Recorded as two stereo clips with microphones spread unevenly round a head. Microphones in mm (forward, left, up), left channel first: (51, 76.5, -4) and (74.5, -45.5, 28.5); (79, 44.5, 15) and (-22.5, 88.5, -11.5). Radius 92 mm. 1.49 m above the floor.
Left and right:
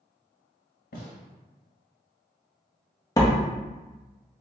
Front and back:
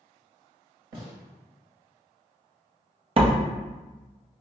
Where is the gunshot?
120° left, 1.2 m.